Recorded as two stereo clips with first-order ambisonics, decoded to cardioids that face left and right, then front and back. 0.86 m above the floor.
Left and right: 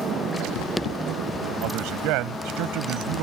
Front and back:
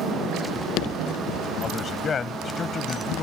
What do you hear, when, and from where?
1.6 s a man speaking: 65° right